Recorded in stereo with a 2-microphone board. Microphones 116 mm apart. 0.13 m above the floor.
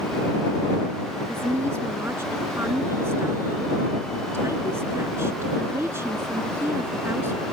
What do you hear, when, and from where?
1.3 s a woman speaking: 20° right (ahead or behind)